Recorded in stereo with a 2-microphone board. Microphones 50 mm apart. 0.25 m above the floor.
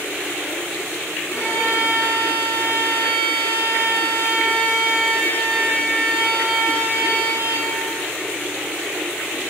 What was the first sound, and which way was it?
A violin, 55° left (ahead or behind).